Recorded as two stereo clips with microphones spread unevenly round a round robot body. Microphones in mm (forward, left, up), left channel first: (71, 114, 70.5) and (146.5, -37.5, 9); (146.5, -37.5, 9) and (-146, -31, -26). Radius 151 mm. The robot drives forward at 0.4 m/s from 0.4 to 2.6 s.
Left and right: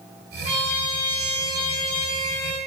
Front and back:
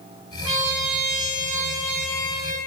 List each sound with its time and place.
0.5 s a trumpet: straight behind, 1.0 m